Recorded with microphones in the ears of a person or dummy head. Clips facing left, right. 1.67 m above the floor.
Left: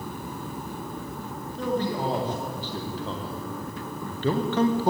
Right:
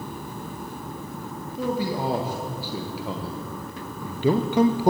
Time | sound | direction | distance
1.6 | a man speaking | 10° right (ahead or behind) | 3 m